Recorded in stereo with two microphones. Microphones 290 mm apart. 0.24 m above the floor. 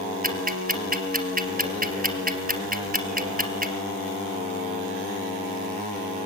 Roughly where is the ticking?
Right.